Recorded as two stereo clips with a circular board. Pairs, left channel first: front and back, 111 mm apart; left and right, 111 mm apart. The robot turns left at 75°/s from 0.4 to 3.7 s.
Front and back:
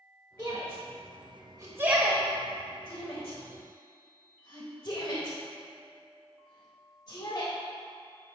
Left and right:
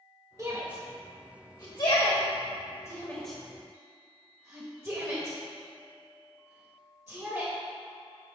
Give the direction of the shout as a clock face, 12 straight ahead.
4 o'clock.